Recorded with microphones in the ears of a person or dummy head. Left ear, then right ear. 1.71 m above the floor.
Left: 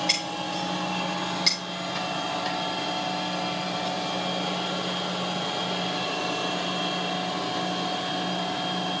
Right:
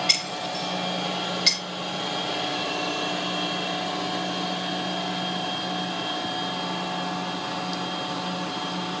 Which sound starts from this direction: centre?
Breaking glass, at 0.1 s.